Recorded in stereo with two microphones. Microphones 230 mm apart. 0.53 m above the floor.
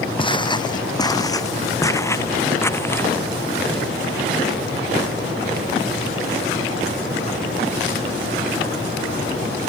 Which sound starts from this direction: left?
Footsteps, at 0.2 s.